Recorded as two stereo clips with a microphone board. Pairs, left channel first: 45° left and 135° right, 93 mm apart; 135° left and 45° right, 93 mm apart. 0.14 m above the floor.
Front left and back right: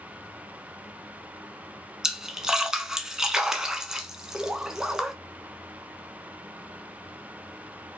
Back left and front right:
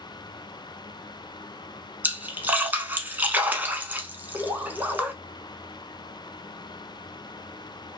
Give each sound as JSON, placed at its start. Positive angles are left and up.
{"t": 2.0, "sound": "a splash", "azimuth_deg": -65, "distance_m": 0.6}